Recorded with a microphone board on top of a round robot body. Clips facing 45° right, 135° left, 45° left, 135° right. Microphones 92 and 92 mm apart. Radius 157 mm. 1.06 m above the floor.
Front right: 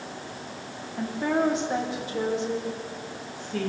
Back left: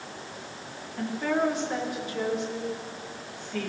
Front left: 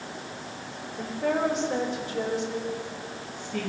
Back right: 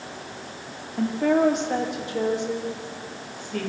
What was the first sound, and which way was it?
A woman speaking, 120° right.